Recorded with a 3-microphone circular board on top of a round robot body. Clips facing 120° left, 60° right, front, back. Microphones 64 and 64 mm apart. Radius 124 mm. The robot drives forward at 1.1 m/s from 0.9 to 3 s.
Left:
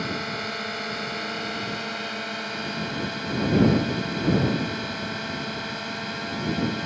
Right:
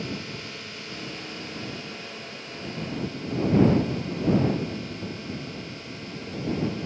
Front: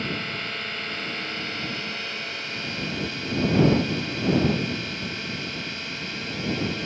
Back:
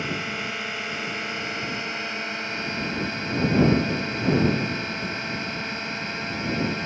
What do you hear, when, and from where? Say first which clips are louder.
0.0 s a drone: left 5 dB, back 1 dB; 105° left; by 6.9 s 120° left